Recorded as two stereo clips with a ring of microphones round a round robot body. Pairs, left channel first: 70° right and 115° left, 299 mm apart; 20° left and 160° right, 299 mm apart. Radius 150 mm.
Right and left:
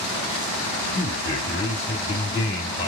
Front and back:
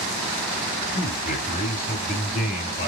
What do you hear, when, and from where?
0.9 s a man speaking: 20° right, 1.2 m